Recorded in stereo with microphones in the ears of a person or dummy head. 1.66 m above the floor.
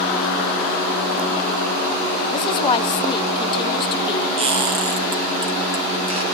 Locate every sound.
2.3 s a woman speaking: 30° left (ahead or behind), 0.7 m
4.4 s a squeak: 30° right (ahead or behind), 2.5 m